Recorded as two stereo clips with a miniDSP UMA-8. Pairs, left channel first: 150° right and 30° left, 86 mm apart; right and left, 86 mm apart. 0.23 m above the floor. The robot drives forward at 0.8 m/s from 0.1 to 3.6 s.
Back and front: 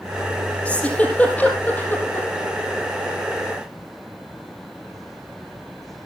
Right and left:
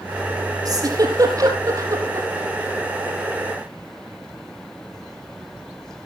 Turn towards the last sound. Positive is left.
turn(degrees=145)